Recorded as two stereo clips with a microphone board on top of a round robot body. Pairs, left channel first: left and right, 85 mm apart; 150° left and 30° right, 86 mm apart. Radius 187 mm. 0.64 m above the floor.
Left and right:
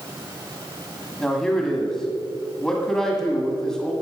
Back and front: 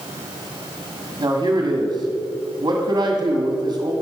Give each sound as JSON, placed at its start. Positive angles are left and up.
{"t": 1.2, "sound": "a man speaking", "azimuth_deg": 15, "distance_m": 1.8}